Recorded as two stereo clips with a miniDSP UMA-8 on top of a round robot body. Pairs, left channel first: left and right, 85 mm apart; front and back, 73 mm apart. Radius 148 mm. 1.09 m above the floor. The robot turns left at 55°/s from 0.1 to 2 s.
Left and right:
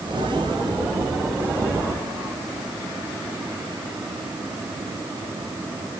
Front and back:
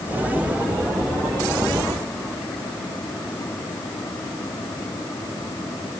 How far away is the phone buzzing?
I don't hear a phone buzzing.